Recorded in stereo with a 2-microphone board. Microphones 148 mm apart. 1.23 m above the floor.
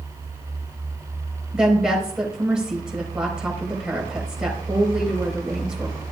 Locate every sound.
1.5 s a woman speaking: 5° right (ahead or behind), 4.5 m